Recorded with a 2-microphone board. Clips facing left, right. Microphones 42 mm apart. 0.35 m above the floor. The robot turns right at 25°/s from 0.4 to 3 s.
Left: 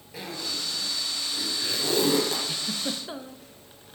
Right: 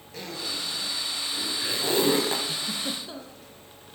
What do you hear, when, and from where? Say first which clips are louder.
0.1 s a zipper: even; 10° left (ahead or behind), 1.9 m; by 2.5 s 35° right (ahead or behind), 1.9 m
2.5 s a giggle: even; 15° left (ahead or behind), 0.6 m; by 3.5 s 25° left (ahead or behind), 0.6 m